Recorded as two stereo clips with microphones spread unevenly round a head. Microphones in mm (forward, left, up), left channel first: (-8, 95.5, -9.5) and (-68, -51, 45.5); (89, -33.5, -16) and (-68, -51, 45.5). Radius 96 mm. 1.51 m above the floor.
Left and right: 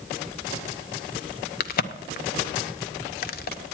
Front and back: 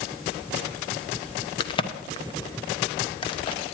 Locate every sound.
1.6 s a crack: 60° left, 0.6 m